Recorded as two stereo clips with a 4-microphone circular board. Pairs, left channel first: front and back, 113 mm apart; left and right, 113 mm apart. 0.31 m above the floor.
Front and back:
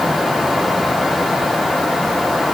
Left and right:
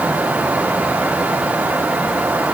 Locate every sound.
Only background noise.